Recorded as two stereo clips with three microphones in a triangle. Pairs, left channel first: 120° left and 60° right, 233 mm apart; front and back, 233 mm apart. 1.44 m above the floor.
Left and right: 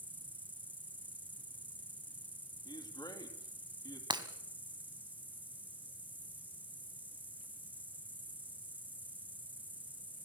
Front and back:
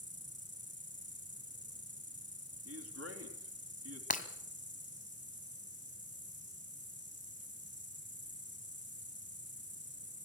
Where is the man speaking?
170° right, 3.5 m.